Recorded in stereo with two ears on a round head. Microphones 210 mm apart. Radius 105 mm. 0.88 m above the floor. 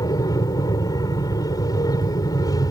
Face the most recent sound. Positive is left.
turn(degrees=15)  # may be behind; listen again after turning